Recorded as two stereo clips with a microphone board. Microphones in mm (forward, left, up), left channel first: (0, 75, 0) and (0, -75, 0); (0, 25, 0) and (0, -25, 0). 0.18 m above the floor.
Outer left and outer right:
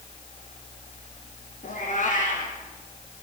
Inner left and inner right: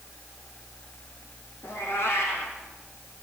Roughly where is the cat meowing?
Left.